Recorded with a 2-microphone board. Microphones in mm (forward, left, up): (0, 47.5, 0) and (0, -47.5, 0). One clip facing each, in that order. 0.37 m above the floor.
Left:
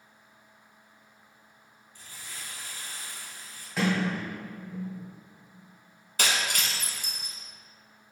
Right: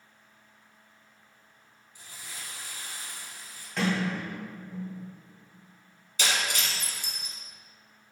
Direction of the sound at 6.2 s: 55° left (ahead or behind).